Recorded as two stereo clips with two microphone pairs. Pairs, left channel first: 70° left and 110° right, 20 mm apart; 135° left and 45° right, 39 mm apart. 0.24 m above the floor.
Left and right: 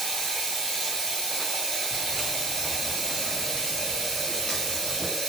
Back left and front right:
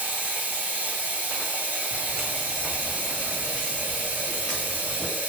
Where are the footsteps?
30° right, 0.8 m; by 5.1 s 65° left, 1.6 m.